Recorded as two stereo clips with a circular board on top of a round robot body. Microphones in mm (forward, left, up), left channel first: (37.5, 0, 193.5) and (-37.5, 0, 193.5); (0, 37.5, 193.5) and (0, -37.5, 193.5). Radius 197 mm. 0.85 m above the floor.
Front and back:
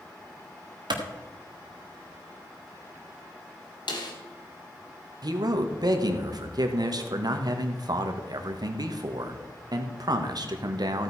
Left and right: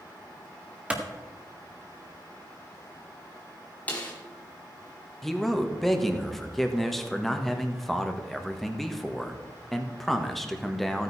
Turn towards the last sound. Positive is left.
turn(degrees=175)